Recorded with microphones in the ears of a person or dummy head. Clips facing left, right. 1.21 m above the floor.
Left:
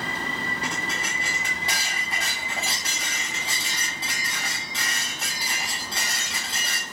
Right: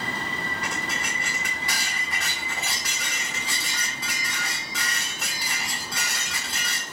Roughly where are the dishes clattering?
Left.